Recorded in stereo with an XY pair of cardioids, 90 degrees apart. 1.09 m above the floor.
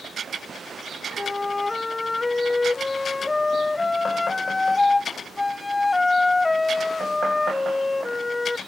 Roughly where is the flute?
Ahead left.